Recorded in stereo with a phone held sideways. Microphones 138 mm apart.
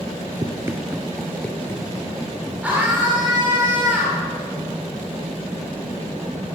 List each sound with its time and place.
0.4 s running footsteps: 30° right (ahead or behind), 1.2 m; by 2.5 s 30° left (ahead or behind), 2.5 m
2.6 s a scream: 10° right (ahead or behind), 3.5 m